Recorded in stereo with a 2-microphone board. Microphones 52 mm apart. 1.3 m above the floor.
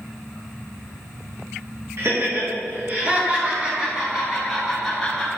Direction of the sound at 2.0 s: 55° right (ahead or behind).